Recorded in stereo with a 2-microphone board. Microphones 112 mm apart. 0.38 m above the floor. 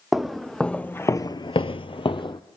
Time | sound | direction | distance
0.1 | footsteps | centre (ahead or behind) | 1.0 m